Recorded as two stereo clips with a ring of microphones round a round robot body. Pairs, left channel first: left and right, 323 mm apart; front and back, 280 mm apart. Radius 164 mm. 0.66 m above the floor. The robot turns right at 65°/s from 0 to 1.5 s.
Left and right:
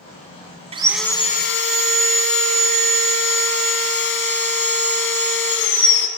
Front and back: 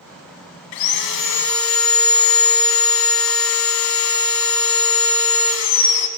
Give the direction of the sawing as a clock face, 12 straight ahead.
1 o'clock.